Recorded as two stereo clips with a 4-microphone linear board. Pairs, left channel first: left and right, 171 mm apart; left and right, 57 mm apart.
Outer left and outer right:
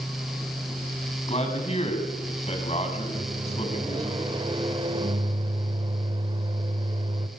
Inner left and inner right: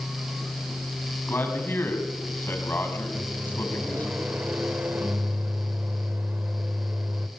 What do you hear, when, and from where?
1.3 s a man speaking: 40° left (ahead or behind), 5 m
3.1 s a microwave: 30° right (ahead or behind), 1.5 m